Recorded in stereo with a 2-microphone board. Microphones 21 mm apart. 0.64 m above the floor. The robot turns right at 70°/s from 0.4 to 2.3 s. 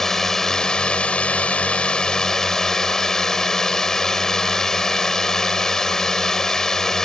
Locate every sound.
0.0 s a drone: 25° left; by 7.1 s 155° left